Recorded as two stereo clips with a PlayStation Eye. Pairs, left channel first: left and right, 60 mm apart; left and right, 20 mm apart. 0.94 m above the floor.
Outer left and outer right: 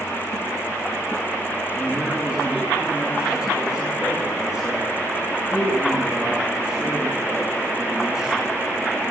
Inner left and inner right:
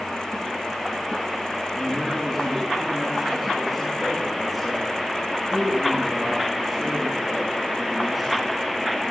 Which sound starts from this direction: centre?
A man speaking, at 1.7 s.